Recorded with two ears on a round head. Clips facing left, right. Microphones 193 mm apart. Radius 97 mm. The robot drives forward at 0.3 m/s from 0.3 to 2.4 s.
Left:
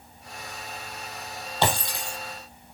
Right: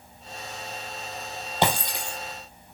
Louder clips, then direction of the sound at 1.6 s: Right 1 dB; 20° right (ahead or behind).